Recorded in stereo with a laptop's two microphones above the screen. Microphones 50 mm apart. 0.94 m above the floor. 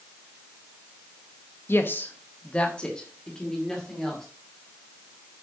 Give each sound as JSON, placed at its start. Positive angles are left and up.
{"t": 1.7, "sound": "a woman speaking", "side_deg": 50, "distance_m": 0.8}